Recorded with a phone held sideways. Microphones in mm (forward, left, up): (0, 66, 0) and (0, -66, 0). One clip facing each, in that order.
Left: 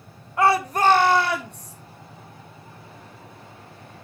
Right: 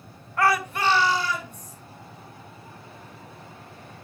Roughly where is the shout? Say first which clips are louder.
Left 4 dB; centre.